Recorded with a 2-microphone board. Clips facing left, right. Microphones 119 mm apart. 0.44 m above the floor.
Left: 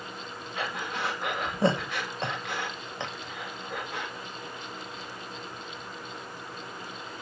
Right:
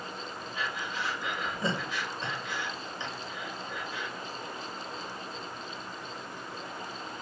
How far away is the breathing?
About 1.2 m.